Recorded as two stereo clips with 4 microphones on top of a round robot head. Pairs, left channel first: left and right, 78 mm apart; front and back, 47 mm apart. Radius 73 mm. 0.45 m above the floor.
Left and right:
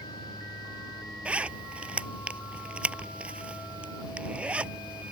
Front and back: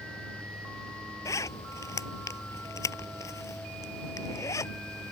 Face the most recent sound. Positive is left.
turn(degrees=-15)